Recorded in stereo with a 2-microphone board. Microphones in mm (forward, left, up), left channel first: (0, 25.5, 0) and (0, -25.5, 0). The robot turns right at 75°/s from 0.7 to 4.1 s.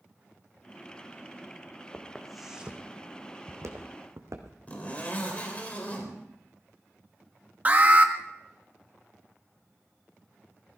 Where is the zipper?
30° left (ahead or behind), 3.5 m.